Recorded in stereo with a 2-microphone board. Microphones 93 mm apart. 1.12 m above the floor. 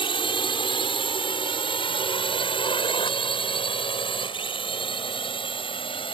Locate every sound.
0.0 s a drone: 60° left (ahead or behind); by 6.2 s 65° left (ahead or behind)